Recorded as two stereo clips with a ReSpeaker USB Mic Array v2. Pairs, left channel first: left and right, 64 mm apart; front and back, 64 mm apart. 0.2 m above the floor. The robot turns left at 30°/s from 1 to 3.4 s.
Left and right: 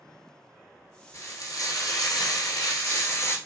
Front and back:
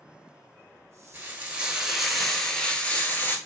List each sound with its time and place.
1.1 s frying: 120° left, 0.8 m; by 3.4 s 50° left, 0.8 m